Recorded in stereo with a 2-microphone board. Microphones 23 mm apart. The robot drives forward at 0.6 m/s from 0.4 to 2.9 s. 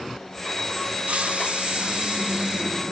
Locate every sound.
1.1 s a hiss: 65° right (ahead or behind), 0.8 m; by 2.7 s 35° right (ahead or behind), 1.2 m